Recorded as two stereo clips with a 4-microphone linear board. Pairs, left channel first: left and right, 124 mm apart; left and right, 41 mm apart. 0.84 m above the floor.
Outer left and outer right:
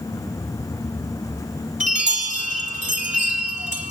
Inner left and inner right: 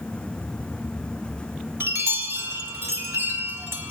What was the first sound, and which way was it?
A chime, 80° right.